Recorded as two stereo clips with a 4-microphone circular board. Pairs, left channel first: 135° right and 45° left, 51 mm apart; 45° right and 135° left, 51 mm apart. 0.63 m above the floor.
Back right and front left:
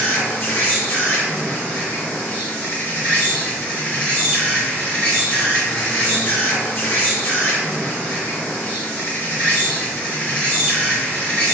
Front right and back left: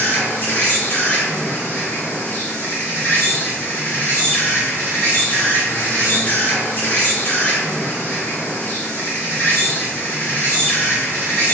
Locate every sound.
0.0 s an insect: 85° right, 0.9 m